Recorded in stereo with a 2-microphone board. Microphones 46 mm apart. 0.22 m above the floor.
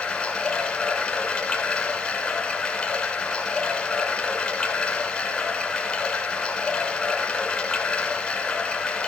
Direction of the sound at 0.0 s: 15° left (ahead or behind).